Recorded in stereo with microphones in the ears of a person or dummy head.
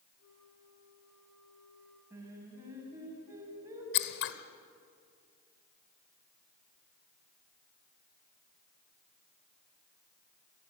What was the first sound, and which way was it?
A flute, 80° left.